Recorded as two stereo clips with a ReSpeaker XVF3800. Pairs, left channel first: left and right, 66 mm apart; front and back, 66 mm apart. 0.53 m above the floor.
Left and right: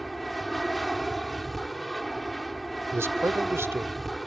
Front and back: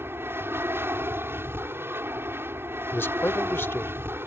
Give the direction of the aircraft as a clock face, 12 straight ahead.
6 o'clock.